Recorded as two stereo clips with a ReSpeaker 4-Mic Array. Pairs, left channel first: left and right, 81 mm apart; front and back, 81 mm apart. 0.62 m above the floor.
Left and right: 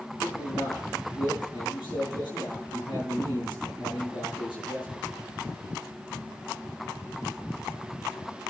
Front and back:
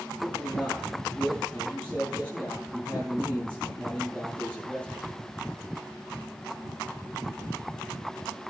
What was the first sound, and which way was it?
A man speaking, 70° left.